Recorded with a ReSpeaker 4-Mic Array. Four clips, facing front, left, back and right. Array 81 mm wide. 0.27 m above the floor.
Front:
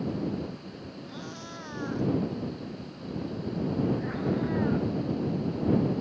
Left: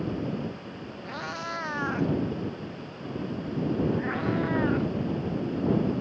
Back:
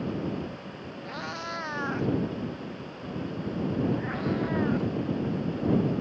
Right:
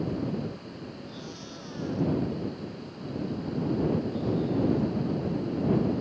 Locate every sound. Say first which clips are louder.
1.1 s a cat meowing: left 7 dB, back 5 dB; 130° left; by 4.9 s 100° left